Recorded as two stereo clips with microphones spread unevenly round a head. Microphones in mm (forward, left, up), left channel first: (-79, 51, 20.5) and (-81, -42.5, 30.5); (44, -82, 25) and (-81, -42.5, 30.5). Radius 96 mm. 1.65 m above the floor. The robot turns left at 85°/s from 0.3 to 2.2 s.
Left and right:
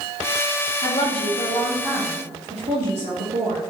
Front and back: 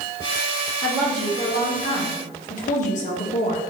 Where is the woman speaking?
75° left, 2 m; by 3.6 s 40° right, 2 m.